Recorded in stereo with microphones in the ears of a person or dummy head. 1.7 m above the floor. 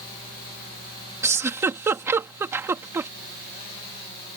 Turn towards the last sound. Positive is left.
turn(degrees=-10)  # may be behind; listen again after turning